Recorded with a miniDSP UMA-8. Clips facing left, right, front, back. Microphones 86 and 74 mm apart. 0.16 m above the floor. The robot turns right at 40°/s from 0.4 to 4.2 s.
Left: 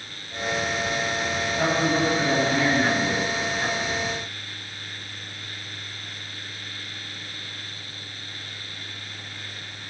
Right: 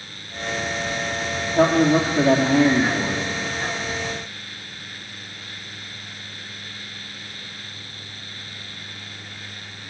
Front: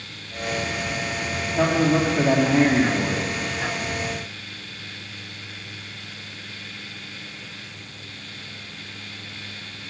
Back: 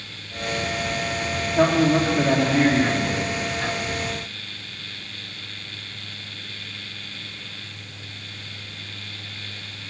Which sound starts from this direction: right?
A man speaking, at 1.6 s.